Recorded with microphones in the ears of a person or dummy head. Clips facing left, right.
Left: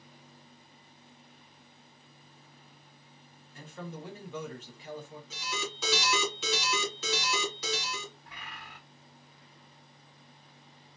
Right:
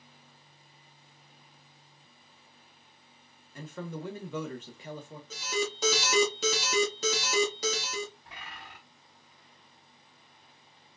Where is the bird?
75° right (ahead or behind), 3 m.